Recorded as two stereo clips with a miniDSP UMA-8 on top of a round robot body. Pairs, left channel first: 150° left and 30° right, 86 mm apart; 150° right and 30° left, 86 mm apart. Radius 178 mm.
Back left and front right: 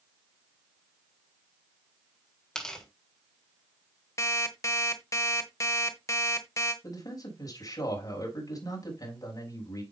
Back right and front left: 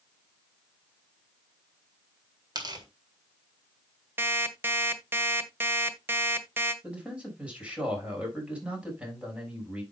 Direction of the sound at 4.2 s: 95° left.